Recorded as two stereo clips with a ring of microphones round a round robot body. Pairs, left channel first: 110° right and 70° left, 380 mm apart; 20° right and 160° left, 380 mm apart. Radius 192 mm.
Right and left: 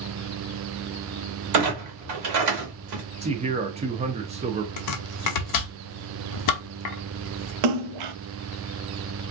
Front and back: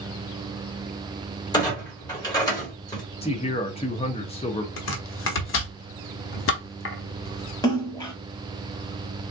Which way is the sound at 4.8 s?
80° right.